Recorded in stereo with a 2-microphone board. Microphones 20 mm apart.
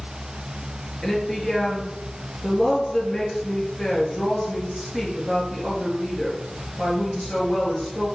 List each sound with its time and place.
1.0 s a woman speaking: 15° left (ahead or behind), 3.5 m